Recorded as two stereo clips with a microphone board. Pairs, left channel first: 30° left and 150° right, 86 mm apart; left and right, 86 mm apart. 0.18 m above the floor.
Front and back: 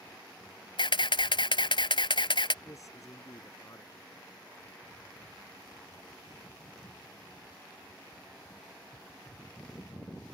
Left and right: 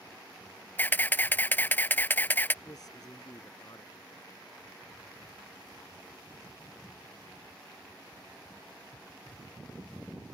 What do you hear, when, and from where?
0.8 s a camera shutter: 20° left
2.6 s a man speaking: 65° left